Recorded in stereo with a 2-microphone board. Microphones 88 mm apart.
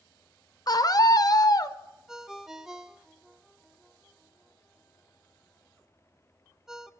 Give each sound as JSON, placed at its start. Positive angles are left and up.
{"t": 0.7, "sound": "a scream", "side_deg": 45, "distance_m": 0.7}
{"t": 2.1, "sound": "a ringtone", "side_deg": -5, "distance_m": 0.7}